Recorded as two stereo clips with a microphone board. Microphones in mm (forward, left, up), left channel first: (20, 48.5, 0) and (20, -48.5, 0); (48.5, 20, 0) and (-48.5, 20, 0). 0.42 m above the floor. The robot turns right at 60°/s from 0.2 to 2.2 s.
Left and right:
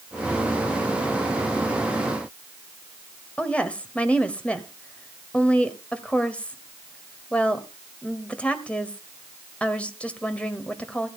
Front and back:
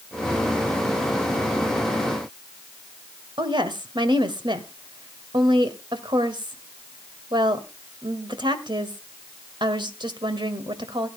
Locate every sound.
3.4 s a woman speaking: 165° left, 1.7 m